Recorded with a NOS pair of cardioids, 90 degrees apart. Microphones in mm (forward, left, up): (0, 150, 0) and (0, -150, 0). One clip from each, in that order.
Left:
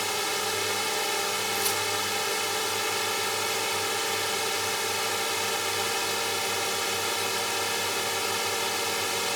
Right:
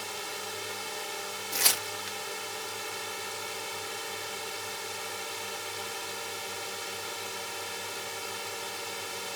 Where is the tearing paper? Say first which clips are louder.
Left 2 dB; 45° right.